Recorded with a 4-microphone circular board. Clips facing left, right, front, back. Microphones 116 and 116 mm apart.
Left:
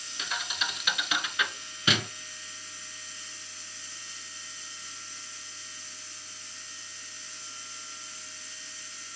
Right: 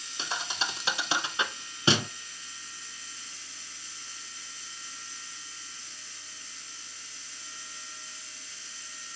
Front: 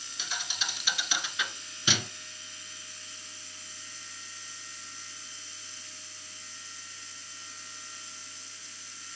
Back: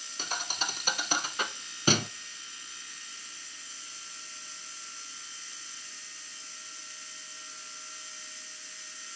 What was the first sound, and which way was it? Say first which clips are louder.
A thud: right 1 dB, back 3 dB; 145° right.